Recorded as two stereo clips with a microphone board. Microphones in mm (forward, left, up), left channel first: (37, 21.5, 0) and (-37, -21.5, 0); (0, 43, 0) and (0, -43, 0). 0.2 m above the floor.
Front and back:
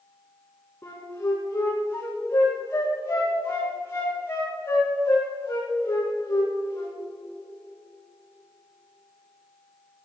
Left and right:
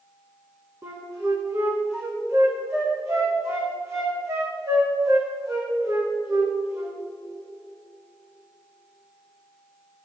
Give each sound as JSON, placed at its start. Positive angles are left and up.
{"t": 0.8, "sound": "a flute", "azimuth_deg": -35, "distance_m": 4.5}